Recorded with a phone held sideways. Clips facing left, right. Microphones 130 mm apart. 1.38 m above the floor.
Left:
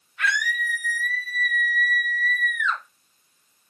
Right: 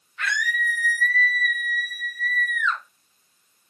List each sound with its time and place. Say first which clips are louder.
0.2 s a scream: left 1 dB; 10° left (ahead or behind), 2.5 m; by 2.8 s 45° left (ahead or behind), 0.9 m